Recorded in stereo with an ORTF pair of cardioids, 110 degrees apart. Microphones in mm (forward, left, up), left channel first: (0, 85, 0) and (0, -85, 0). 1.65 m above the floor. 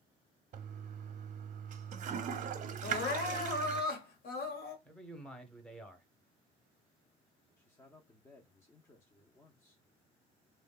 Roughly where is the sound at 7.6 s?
Ahead.